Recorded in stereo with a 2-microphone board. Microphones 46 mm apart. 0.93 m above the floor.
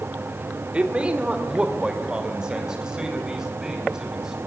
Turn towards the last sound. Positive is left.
turn(degrees=-10)  # may be behind; listen again after turning